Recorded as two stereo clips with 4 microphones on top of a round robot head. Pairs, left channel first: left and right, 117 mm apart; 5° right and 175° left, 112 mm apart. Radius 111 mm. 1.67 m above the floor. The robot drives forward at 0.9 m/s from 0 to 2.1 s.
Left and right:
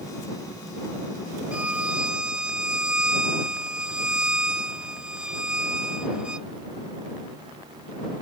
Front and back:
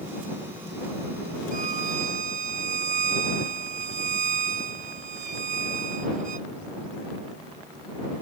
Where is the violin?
170° right; by 6.5 s 175° right.